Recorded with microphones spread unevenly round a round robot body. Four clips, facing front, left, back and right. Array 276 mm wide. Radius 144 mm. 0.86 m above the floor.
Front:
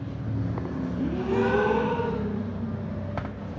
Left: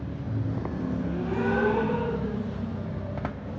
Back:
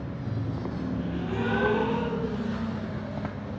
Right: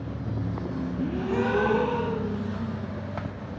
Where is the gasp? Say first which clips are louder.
Right 4 dB, front 9 dB; 30° right, 9 m.